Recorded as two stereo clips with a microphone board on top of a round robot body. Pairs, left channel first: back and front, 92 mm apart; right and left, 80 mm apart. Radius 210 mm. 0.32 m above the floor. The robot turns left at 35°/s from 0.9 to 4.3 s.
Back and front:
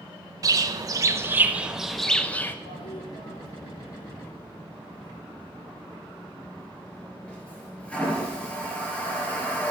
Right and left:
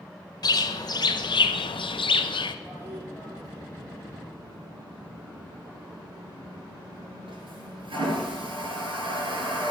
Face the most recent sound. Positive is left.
turn(degrees=100)